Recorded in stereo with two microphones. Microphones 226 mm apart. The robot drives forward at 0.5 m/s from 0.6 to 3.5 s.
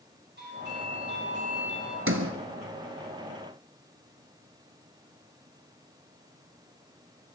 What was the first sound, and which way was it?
A doorbell, 50° right (ahead or behind).